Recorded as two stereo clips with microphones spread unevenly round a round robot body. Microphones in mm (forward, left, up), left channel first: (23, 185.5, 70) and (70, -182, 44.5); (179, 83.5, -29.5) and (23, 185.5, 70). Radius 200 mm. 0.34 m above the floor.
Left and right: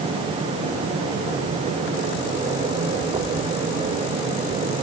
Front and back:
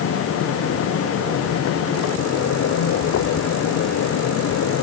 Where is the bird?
No bird in this recording.